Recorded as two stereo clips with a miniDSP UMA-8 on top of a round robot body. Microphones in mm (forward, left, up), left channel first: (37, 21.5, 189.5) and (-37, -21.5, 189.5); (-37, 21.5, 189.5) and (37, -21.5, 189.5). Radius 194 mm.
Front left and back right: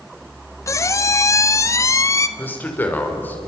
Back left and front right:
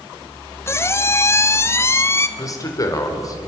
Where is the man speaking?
100° left, 4.5 m.